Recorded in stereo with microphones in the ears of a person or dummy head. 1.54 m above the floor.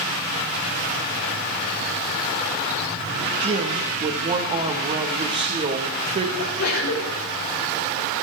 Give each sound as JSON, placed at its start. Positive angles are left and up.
{"t": 3.4, "sound": "a woman speaking", "side_deg": -30, "distance_m": 1.5}
{"t": 6.4, "sound": "a sneeze", "side_deg": 85, "distance_m": 5.5}